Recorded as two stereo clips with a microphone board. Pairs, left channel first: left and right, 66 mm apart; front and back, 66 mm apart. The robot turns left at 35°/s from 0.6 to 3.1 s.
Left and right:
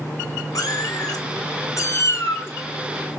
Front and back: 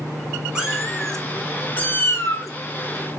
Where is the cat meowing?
105° left, 1.3 m; by 2.5 s 35° left, 1.3 m.